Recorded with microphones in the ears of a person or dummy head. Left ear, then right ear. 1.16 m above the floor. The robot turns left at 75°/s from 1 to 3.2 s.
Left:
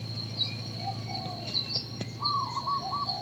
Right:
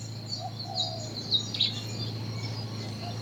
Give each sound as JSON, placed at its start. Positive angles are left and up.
{"t": 0.0, "sound": "an engine running", "azimuth_deg": 50, "distance_m": 1.3}